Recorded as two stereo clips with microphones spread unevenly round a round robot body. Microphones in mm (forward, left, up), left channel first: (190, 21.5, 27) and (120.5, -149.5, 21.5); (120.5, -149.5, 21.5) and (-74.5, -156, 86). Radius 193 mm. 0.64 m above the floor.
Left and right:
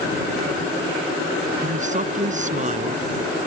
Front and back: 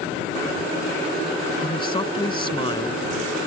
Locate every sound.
1.6 s a man speaking: 65° right